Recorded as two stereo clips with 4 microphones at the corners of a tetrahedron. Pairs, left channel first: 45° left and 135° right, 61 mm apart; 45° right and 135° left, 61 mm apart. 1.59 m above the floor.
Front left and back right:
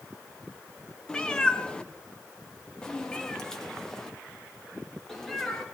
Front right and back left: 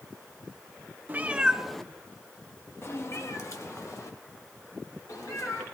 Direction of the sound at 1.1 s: 110° left.